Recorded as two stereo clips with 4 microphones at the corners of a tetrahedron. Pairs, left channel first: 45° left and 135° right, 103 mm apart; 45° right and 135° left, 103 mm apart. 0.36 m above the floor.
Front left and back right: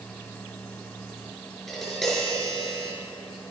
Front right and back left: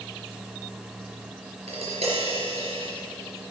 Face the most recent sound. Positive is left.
turn(degrees=135)